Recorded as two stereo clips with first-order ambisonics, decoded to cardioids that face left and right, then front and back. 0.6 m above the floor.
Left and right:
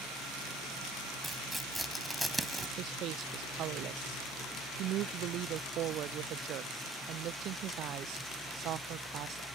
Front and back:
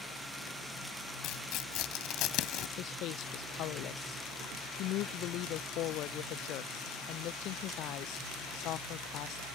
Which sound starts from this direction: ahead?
Tearing paper, at 1.2 s.